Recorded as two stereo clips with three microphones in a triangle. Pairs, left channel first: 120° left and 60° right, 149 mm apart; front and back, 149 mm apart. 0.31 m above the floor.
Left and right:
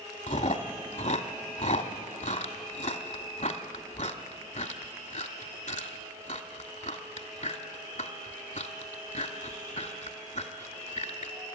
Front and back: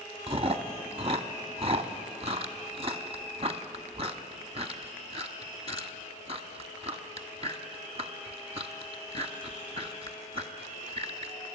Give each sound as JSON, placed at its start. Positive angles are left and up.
{"t": 0.3, "sound": "chewing", "azimuth_deg": 140, "distance_m": 1.1}